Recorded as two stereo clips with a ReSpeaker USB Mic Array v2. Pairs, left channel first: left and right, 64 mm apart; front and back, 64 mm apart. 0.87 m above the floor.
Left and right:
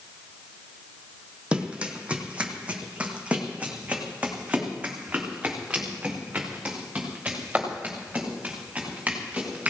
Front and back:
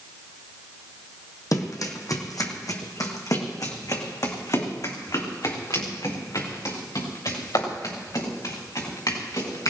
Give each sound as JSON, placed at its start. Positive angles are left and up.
{"t": 1.5, "sound": "running footsteps", "azimuth_deg": -15, "distance_m": 2.0}